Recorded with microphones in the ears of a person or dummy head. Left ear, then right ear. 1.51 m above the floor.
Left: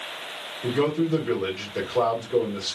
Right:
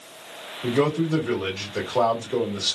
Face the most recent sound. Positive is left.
turn(degrees=-35)  # may be behind; listen again after turning